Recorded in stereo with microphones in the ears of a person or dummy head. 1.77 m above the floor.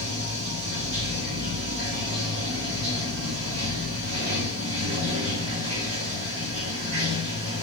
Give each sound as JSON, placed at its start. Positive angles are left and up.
{"t": 0.0, "sound": "running water", "side_deg": -70, "distance_m": 1.0}